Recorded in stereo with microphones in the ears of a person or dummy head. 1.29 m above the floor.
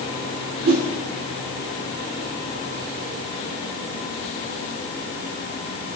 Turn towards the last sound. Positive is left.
turn(degrees=-40)  # may be behind; listen again after turning